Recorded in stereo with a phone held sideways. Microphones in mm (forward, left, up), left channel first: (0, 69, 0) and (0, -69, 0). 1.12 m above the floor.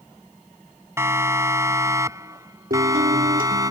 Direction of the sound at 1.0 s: 20° right (ahead or behind).